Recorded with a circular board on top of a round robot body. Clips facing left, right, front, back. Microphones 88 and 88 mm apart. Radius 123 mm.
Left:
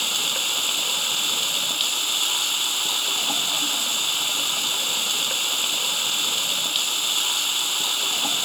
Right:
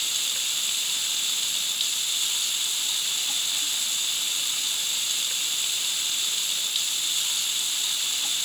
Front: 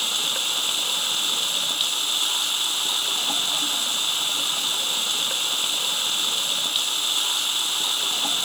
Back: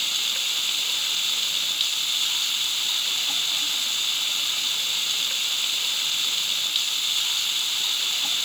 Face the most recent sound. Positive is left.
turn(degrees=55)